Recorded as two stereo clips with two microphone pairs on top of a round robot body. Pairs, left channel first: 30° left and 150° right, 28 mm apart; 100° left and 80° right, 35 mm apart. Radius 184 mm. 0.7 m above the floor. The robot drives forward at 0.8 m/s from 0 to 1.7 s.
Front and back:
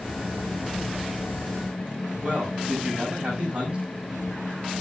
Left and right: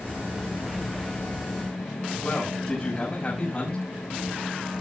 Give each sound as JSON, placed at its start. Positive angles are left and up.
{"t": 2.2, "sound": "a man speaking", "azimuth_deg": 160, "distance_m": 5.5}